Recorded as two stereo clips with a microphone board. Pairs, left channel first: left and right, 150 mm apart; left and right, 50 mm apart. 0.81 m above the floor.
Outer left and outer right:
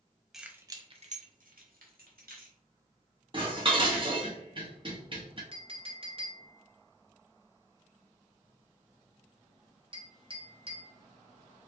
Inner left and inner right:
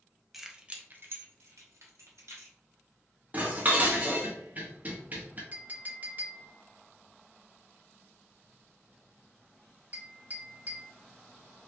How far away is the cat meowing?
No cat meowing in this recording.